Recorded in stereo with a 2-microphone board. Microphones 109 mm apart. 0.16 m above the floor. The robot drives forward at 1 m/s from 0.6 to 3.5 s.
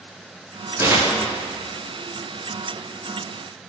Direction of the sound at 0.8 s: 25° right (ahead or behind).